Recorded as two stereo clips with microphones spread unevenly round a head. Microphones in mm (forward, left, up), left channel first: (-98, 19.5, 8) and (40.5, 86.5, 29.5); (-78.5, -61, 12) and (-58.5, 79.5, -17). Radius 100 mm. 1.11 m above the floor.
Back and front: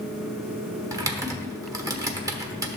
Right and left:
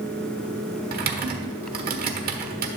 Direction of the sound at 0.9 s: 90° left.